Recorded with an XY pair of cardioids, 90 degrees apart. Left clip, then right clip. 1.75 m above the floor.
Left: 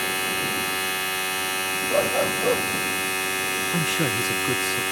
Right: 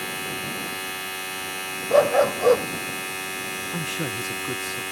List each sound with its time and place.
0.0 s a machine running: 35° left
1.9 s a dog barking: 60° right
3.7 s a man speaking: 25° left